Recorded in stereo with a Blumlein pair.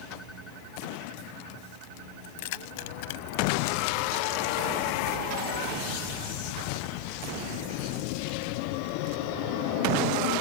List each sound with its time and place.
2.2 s keys jangling: 50° left